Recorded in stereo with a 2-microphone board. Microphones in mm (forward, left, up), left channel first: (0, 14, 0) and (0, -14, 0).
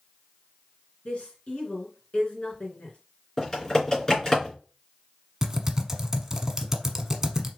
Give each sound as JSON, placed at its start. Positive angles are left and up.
{"t": 1.1, "sound": "a woman speaking", "side_deg": 45, "distance_m": 2.5}
{"t": 3.4, "sound": "typing on a keyboard", "side_deg": 20, "distance_m": 3.0}
{"t": 5.4, "sound": "typing on a keyboard", "side_deg": -15, "distance_m": 0.9}